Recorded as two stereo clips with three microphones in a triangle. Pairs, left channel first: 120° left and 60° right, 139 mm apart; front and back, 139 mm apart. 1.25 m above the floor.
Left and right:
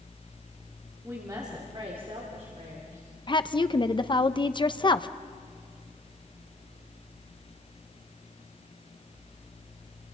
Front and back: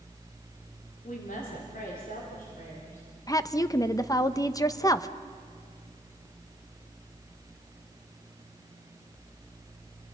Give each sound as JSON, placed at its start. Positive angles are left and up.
{"t": 1.0, "sound": "a woman speaking", "azimuth_deg": 15, "distance_m": 3.0}
{"t": 3.3, "sound": "a woman speaking", "azimuth_deg": 65, "distance_m": 0.8}